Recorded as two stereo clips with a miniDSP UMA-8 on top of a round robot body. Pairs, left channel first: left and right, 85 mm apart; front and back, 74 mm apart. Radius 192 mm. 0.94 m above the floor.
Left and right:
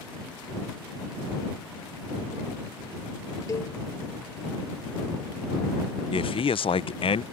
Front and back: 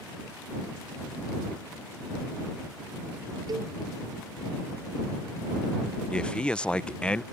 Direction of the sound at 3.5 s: 145° left.